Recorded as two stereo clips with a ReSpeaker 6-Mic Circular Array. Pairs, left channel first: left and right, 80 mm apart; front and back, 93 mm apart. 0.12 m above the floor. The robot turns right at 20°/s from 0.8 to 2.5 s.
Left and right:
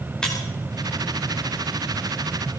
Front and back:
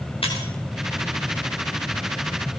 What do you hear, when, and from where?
0.2 s breaking glass: 10° left, 5.5 m